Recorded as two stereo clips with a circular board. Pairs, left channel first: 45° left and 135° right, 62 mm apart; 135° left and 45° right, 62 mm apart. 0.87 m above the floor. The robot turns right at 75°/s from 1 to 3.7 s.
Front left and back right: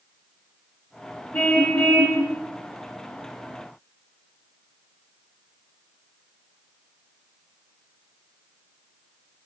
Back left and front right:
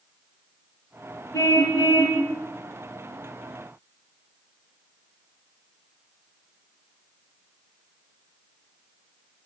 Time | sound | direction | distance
1.3 | a car horn | 100° left | 6.5 m